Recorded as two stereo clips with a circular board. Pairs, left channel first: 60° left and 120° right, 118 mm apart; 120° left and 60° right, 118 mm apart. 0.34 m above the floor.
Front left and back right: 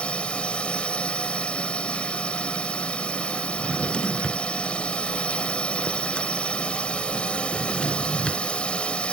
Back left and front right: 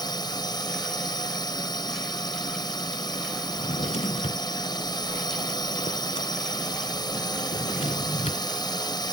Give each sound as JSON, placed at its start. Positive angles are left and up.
{"t": 0.0, "sound": "a drone", "azimuth_deg": 135}
{"t": 3.5, "sound": "a drawer", "azimuth_deg": 140}